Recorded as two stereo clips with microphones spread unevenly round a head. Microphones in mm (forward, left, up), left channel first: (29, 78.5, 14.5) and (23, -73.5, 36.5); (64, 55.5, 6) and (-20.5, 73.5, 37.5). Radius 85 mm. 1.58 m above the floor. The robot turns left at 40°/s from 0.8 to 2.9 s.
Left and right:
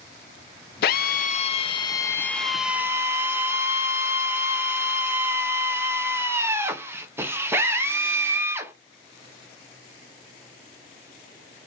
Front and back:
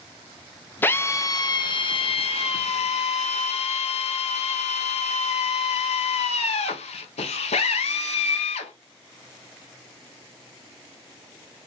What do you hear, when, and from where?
0.8 s a drill: 65° left, 0.7 m; by 8.7 s 20° right, 0.7 m